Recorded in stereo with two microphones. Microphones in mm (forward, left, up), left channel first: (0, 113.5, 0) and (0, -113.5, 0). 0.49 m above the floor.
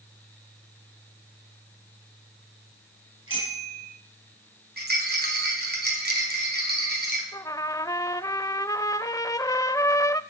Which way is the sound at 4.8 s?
45° right (ahead or behind).